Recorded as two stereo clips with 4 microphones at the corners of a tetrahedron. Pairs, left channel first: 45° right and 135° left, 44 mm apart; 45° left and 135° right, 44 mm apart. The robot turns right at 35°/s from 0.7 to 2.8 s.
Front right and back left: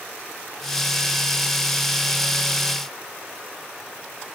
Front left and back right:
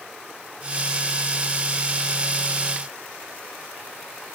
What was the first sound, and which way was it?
Only background noise.